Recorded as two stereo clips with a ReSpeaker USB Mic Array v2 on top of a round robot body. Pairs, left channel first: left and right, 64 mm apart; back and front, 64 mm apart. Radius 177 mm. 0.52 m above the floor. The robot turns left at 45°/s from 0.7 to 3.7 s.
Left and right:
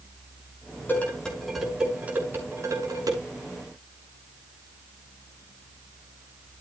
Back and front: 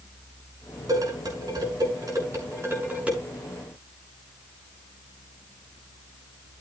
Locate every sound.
0.9 s dishes clattering: 30° left, 5.5 m; by 3.2 s 75° right, 5.5 m